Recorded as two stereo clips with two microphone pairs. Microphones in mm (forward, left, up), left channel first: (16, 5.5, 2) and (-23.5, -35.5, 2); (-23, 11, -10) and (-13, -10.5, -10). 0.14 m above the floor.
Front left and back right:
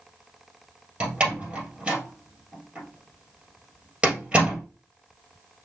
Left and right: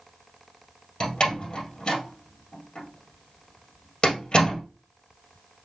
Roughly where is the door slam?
Behind left.